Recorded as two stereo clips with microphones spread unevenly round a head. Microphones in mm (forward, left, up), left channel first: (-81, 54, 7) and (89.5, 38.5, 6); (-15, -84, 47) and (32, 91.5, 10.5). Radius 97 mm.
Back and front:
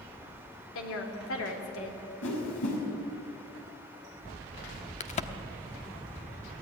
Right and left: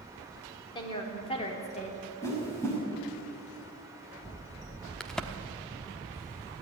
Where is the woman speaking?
170° right, 3.5 m; by 2.0 s 160° right, 3 m.